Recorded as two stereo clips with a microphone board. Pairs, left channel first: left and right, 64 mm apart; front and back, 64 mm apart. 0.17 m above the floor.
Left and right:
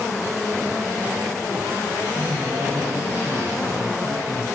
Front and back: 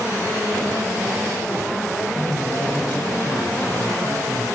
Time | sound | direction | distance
2.1 | a man speaking | 50° right | 10 m